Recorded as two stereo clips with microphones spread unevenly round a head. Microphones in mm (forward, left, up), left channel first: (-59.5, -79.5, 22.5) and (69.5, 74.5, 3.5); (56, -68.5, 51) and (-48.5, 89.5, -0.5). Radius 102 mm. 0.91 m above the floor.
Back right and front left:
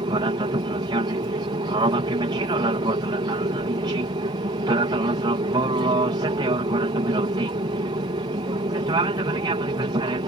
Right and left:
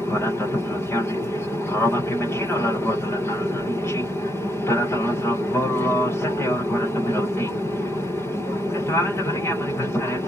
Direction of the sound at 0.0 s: 40° left.